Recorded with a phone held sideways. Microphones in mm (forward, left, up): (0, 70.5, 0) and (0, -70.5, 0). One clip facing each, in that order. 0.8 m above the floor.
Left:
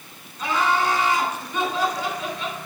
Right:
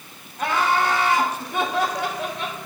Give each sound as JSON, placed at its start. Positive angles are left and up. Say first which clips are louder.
{"t": 0.4, "sound": "laughter", "louder": "right 1 dB", "side_deg": -65, "distance_m": 3.5}